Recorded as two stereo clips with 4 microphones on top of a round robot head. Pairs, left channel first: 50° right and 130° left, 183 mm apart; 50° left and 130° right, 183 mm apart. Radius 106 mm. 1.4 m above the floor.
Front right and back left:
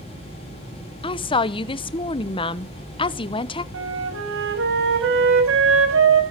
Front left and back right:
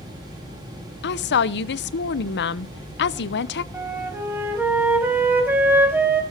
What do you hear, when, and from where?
1.0 s a woman speaking: 15° left, 0.8 m
3.7 s a flute: 150° left, 5 m